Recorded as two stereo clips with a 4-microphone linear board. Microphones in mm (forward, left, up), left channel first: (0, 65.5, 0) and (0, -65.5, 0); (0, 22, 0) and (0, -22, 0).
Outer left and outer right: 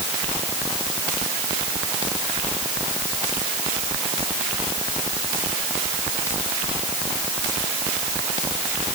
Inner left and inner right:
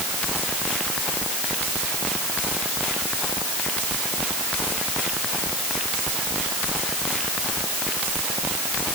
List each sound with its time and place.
Only background noise.